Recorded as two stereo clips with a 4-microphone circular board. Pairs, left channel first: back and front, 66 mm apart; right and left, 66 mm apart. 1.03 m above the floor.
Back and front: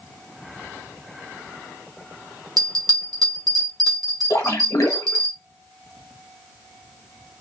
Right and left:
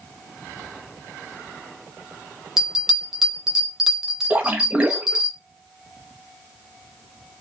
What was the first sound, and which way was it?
A bell, 5° left.